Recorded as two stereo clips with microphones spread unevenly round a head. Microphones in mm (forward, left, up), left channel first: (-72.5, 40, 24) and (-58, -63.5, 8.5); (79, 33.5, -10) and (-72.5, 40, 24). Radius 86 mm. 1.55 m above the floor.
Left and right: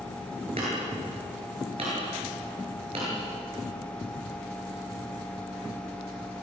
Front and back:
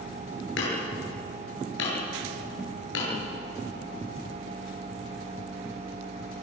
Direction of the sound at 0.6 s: 20° right.